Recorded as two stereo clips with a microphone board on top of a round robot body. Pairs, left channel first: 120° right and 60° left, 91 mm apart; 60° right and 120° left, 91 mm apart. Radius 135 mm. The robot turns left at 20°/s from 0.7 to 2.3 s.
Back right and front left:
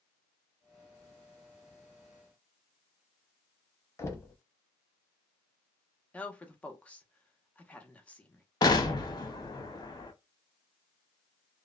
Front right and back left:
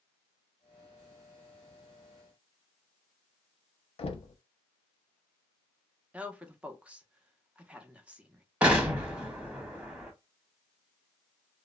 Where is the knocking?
60° right, 0.6 m.